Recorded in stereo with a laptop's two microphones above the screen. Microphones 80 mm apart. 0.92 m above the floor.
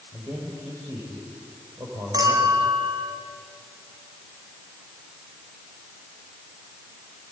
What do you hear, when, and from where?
0.1 s a man speaking: 45° right (ahead or behind), 5 m
2.1 s a clink: 50° right (ahead or behind), 4.5 m